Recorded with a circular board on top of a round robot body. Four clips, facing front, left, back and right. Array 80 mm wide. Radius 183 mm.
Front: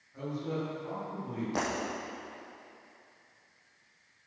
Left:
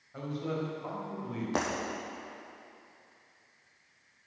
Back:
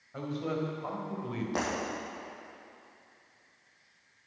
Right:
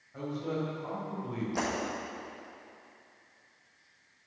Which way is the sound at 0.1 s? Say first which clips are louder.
Right 1 dB, back 2 dB; 160° left.